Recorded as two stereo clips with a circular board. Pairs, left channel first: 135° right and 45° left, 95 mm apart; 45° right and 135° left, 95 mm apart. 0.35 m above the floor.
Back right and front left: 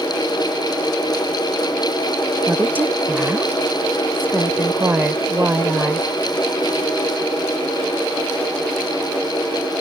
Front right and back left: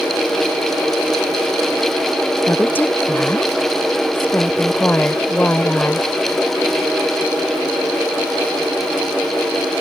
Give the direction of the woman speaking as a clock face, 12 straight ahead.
12 o'clock.